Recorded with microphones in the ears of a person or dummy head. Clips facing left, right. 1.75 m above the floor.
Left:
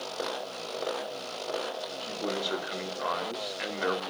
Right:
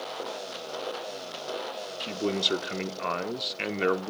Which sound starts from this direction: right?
A man speaking, at 2.0 s.